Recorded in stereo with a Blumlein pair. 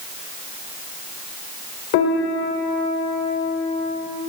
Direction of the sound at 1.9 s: 45° left.